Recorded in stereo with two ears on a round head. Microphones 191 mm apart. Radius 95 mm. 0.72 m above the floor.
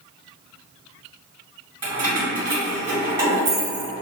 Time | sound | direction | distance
1.8 | keys jangling | 25° right (ahead or behind) | 1.7 m